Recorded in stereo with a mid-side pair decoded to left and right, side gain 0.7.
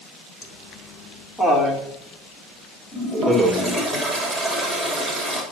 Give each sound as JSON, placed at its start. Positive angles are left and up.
{"t": 0.4, "sound": "laughter", "azimuth_deg": 25, "distance_m": 4.5}
{"t": 2.9, "sound": "a toilet flushing", "azimuth_deg": 10, "distance_m": 8.0}